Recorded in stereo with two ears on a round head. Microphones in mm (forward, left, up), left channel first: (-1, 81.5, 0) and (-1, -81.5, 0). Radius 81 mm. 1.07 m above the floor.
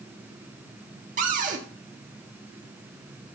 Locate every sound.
1.2 s a cupboard door: 45° right (ahead or behind), 1.4 m